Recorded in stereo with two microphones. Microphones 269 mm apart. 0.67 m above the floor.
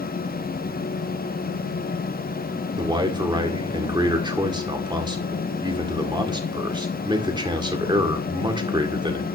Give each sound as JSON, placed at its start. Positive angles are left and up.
{"t": 2.8, "sound": "a man speaking", "side_deg": -15, "distance_m": 2.0}